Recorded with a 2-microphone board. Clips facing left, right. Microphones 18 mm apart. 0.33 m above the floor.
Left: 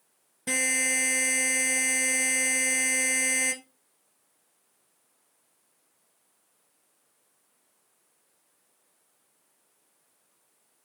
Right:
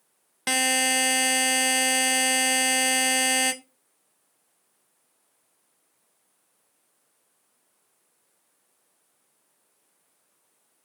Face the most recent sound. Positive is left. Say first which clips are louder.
# right 4 dB
turn(degrees=-75)  # may be behind; listen again after turning